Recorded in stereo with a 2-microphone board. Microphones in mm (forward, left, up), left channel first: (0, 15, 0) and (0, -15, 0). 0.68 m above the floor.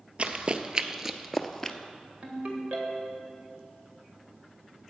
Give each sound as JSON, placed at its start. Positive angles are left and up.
{"t": 0.2, "sound": "running footsteps", "side_deg": -35, "distance_m": 0.8}
{"t": 2.2, "sound": "a ringtone", "side_deg": -50, "distance_m": 1.8}